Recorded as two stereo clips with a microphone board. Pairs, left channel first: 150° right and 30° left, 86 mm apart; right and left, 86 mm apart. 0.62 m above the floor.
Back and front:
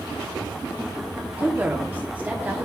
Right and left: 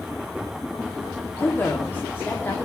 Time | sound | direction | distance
1.4 | a woman speaking | 35° right | 1.4 m